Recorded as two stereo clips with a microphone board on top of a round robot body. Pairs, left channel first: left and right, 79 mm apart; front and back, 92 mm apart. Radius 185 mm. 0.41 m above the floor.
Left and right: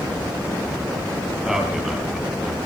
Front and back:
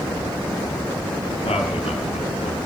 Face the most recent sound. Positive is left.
turn(degrees=-5)